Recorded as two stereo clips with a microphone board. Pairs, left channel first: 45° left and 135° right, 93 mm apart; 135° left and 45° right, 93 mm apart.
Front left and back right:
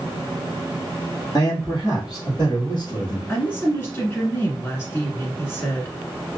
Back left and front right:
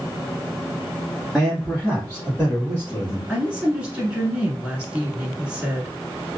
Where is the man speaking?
50° left, 1.8 m; by 3.2 s 80° left, 2.5 m.